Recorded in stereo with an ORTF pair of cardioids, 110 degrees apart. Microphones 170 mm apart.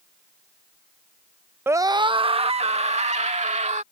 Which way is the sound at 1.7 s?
15° right.